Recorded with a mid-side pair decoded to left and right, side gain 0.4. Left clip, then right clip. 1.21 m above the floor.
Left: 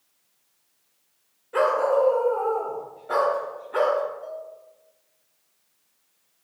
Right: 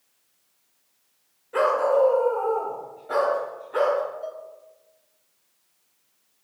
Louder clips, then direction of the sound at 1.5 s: Even; 10° left.